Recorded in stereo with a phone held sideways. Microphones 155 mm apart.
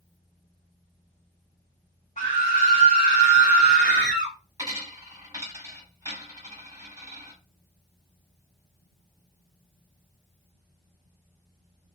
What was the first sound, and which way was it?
A scream, 45° left (ahead or behind).